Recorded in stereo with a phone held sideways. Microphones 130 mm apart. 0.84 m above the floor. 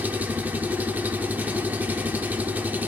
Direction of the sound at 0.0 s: 15° right (ahead or behind).